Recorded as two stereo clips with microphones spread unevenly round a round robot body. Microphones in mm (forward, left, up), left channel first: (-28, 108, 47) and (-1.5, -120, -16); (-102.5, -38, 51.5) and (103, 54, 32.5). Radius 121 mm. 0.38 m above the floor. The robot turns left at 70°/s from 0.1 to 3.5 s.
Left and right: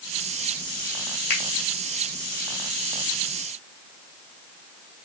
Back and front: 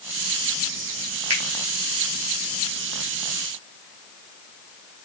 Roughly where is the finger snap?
Left.